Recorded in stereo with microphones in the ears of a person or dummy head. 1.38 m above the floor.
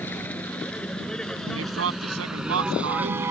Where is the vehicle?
10° left (ahead or behind); by 3.3 s 15° right (ahead or behind).